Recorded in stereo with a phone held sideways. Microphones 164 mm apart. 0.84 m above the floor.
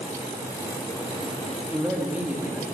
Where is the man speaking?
10° right (ahead or behind), 1.8 m.